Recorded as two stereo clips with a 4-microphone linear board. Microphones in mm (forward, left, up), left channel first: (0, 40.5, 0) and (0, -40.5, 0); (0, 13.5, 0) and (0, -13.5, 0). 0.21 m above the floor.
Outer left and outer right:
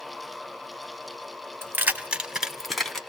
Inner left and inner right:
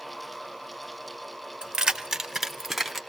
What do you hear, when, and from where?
1.6 s keys jangling: 30° right (ahead or behind), 0.7 m; by 3.0 s 5° left (ahead or behind), 1.0 m